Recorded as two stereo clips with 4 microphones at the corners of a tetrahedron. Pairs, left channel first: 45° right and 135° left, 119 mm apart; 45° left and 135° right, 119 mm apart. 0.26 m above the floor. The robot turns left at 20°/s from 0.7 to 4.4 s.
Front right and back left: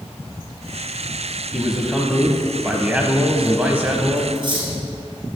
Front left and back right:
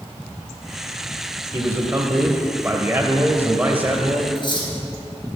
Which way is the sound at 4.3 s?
90° left.